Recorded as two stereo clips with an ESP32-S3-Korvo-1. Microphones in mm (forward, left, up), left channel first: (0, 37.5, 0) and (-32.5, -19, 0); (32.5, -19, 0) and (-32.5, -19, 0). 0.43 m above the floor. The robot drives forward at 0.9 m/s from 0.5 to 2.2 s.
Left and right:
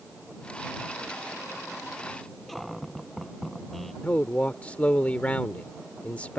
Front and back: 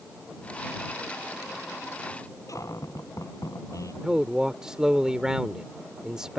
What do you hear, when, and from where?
2.5 s a cupboard door: 25° right
4.0 s a man speaking: 110° left